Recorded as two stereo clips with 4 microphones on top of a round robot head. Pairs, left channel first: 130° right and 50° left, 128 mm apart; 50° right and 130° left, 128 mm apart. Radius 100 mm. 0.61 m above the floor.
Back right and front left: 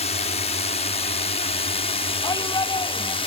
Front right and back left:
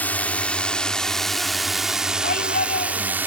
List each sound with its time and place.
0.0 s a drone: 125° right; by 3.3 s 160° right
2.2 s a shout: 70° right